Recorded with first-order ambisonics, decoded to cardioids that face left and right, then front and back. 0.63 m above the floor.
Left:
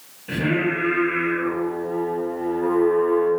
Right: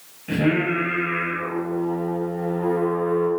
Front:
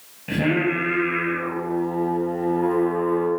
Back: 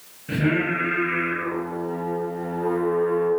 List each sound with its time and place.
0.3 s singing: 10° right, 1.6 m